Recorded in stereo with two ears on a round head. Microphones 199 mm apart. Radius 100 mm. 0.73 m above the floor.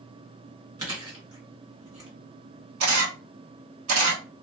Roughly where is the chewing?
Centre.